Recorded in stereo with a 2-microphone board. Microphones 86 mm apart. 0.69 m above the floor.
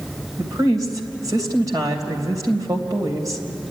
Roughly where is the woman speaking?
Right.